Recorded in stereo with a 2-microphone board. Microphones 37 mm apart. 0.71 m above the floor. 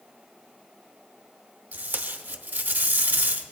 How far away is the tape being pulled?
About 0.7 m.